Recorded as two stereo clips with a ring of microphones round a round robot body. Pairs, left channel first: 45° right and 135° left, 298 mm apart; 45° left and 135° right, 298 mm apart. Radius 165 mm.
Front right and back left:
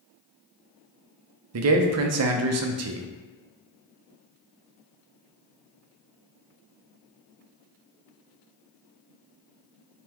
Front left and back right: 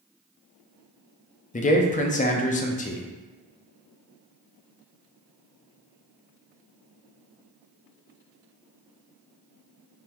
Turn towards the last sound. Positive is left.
turn(degrees=105)